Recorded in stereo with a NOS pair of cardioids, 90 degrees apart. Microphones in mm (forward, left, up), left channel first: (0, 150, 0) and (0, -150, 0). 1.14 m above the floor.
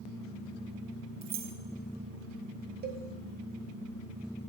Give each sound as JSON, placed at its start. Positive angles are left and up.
{"t": 1.2, "sound": "keys jangling", "azimuth_deg": -60, "distance_m": 0.9}
{"t": 2.8, "sound": "a cowbell", "azimuth_deg": -30, "distance_m": 1.3}